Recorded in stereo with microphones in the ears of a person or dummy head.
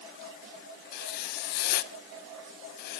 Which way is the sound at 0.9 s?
60° left (ahead or behind).